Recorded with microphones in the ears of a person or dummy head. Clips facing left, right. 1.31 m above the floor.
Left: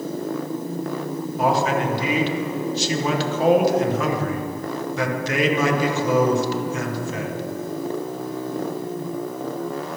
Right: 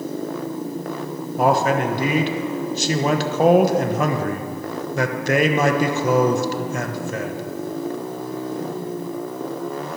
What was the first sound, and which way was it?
A man speaking, 45° right (ahead or behind).